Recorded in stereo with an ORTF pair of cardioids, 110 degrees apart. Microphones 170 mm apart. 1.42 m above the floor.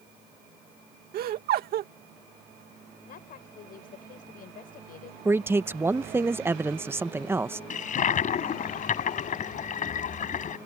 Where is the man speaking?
15° right.